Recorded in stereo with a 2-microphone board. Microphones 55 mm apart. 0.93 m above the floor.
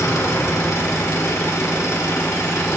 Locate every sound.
0.0 s an engine running: 70° left (ahead or behind), 1.1 m